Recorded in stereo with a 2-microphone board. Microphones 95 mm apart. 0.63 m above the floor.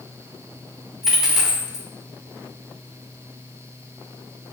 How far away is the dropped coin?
About 0.7 m.